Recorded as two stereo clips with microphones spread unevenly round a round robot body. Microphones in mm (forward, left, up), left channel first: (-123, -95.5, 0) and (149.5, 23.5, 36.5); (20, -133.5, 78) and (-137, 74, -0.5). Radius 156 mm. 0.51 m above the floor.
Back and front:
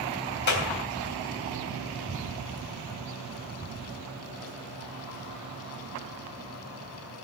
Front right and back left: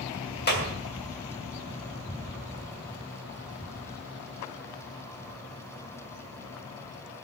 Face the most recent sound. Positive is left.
turn(degrees=-105)